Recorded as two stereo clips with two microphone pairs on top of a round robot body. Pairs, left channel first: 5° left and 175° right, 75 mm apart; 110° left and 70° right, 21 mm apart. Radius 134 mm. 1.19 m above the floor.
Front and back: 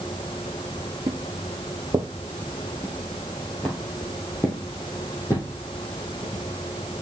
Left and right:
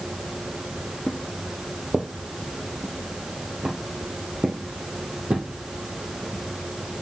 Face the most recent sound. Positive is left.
turn(degrees=-50)